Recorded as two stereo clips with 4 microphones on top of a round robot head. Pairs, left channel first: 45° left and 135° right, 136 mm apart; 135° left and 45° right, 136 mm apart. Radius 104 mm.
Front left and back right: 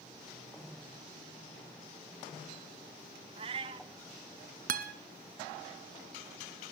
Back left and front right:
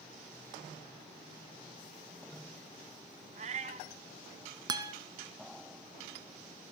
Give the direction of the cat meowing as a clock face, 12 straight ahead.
3 o'clock.